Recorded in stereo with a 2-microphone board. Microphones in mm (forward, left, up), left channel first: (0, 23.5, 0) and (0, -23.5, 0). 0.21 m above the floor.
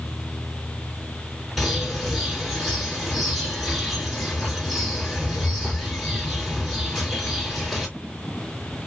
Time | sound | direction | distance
1.6 | a bird | centre (ahead or behind) | 2.5 m